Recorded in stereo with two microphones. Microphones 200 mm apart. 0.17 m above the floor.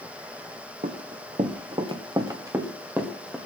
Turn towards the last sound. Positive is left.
turn(degrees=-5)  # may be behind; listen again after turning